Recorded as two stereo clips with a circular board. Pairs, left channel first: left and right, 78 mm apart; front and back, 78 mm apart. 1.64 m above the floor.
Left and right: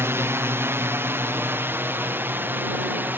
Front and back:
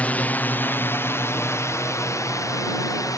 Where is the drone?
55° right; by 3.2 s 30° right.